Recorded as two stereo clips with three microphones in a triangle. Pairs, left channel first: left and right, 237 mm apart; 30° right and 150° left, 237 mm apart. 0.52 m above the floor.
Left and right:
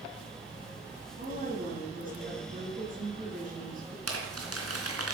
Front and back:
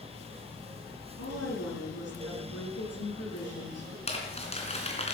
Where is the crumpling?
95° right, 3.5 m.